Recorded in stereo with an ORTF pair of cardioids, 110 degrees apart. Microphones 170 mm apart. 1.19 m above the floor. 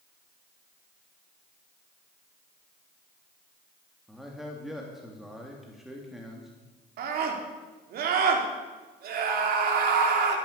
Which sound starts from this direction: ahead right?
A scream, at 7.0 s.